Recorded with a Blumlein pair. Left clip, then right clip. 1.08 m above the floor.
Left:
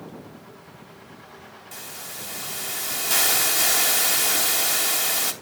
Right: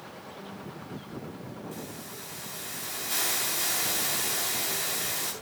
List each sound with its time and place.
1.7 s a hiss: 30° left, 2.5 m